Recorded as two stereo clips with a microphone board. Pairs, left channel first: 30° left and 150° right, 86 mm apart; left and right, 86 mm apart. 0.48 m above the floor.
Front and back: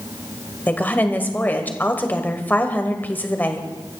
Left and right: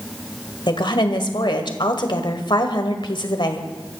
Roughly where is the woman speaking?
Left.